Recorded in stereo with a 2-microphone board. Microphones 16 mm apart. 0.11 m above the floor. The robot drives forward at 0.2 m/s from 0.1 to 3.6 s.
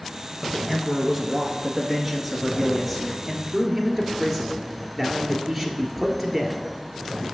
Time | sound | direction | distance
0.4 | a man speaking | 5° left (ahead or behind) | 1.2 m